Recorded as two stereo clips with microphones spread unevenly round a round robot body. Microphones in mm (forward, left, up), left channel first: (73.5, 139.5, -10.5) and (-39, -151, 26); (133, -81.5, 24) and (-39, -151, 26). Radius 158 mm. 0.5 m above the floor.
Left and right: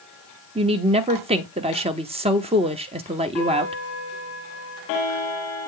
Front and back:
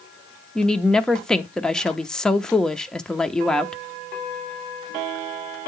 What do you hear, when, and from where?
0.6 s a woman speaking: 55° right, 0.9 m